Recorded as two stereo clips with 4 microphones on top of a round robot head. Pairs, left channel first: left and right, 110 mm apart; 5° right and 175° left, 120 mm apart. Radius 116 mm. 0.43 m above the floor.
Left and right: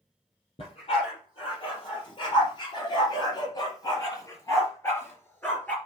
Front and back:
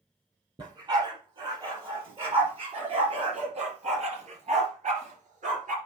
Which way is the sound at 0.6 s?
125° left.